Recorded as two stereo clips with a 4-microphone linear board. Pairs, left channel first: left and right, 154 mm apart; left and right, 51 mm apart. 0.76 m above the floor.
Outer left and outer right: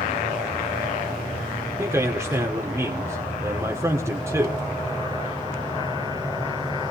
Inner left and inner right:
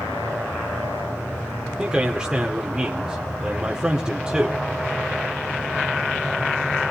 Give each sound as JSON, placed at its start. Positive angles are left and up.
{"t": 1.8, "sound": "a man speaking", "side_deg": -15, "distance_m": 1.9}